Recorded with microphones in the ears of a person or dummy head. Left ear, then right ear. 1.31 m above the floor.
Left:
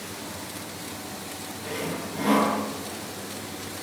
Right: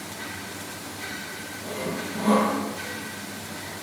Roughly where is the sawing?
Left.